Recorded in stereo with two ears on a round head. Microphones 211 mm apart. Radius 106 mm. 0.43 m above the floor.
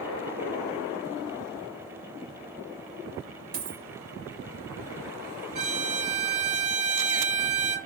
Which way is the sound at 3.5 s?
85° right.